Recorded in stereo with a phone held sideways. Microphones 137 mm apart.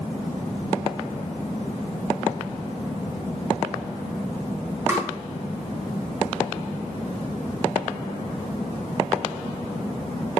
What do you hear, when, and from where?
4.9 s tapping: 20° right (ahead or behind), 1.2 m